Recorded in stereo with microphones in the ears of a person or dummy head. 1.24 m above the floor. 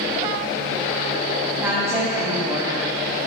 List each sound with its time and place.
1.6 s a woman speaking: 15° right (ahead or behind), 2.5 m